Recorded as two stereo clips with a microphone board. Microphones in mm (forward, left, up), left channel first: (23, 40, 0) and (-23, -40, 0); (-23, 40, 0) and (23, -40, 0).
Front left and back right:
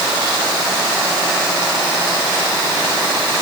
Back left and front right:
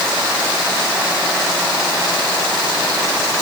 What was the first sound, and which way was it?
Only background noise.